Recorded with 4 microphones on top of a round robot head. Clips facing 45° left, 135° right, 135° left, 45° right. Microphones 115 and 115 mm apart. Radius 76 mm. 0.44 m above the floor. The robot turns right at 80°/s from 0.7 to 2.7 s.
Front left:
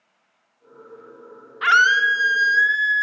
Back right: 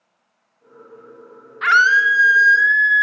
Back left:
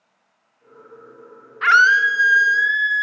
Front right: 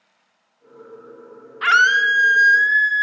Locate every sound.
1.6 s a scream: 15° right, 0.7 m; by 3.0 s 70° left, 0.7 m